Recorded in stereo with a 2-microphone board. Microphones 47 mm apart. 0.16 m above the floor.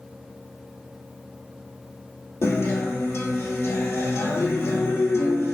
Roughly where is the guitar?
Left.